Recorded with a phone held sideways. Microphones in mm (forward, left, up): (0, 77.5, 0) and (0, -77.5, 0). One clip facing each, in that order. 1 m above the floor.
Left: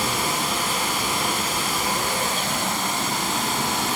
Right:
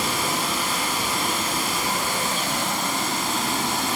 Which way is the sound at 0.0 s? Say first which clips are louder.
Even; 20° left (ahead or behind).